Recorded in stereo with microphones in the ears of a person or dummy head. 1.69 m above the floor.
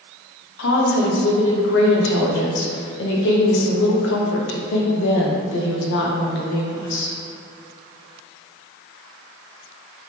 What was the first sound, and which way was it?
A woman speaking, 70° left (ahead or behind).